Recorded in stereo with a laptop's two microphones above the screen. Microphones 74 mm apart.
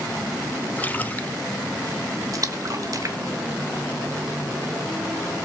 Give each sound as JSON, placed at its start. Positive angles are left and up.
{"t": 0.8, "sound": "a splash", "side_deg": 20, "distance_m": 0.8}
{"t": 2.3, "sound": "a splash", "side_deg": -50, "distance_m": 1.2}